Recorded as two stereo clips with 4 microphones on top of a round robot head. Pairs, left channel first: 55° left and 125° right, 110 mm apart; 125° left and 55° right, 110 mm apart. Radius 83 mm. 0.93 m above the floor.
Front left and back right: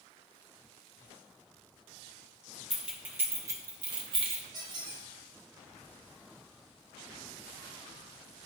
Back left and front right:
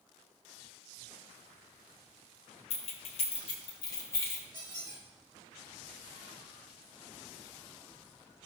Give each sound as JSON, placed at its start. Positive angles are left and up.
{"t": 2.7, "sound": "keys jangling", "azimuth_deg": 150, "distance_m": 1.1}
{"t": 4.5, "sound": "a squeak", "azimuth_deg": -105, "distance_m": 3.5}